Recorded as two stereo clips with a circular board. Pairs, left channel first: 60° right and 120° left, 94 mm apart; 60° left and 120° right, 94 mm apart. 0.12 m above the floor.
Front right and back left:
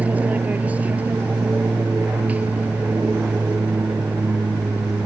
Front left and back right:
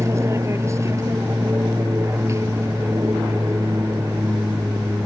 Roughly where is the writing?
I don't hear writing.